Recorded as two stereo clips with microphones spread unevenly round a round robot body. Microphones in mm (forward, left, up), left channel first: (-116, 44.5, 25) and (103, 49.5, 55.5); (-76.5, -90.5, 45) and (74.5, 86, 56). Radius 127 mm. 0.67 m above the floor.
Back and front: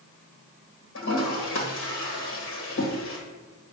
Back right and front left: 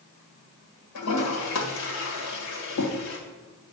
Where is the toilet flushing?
145° right, 1.6 m.